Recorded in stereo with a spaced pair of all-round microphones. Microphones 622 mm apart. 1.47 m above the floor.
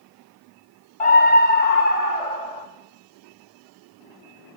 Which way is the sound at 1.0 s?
55° left (ahead or behind).